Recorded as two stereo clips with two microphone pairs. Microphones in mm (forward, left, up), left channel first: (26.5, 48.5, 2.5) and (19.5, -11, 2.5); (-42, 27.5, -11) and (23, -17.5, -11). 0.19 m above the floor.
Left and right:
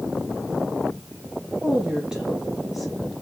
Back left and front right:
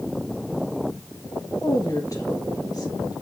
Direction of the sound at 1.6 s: 170° right.